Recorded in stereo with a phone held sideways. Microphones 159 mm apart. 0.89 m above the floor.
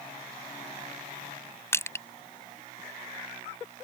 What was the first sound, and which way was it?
Crushing, 15° left (ahead or behind).